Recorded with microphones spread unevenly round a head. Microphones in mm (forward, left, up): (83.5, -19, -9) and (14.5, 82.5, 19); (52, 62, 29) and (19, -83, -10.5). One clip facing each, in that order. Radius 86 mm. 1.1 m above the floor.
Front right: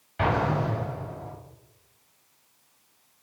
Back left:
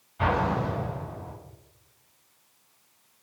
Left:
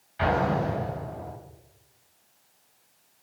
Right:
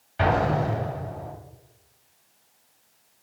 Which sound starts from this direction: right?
An explosion, at 0.2 s.